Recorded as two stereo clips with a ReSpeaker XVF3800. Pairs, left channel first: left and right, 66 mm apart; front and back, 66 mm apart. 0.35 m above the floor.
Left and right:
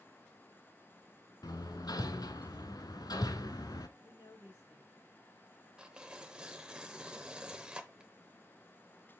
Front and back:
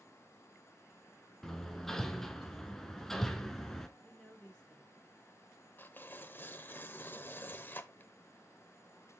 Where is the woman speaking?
75° left, 3.5 m.